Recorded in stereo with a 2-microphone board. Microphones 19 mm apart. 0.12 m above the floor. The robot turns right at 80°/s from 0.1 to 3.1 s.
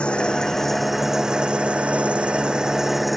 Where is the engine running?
120° left; by 3.2 s straight ahead.